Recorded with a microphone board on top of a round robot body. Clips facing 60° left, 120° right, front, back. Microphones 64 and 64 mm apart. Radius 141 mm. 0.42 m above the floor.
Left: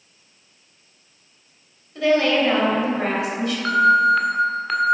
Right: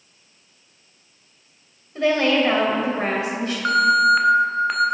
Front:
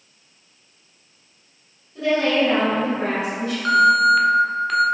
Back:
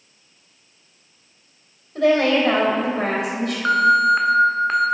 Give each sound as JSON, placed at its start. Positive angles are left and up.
{"t": 1.9, "sound": "a woman speaking", "azimuth_deg": -175, "distance_m": 2.5}
{"t": 3.6, "sound": "an alarm", "azimuth_deg": 175, "distance_m": 1.3}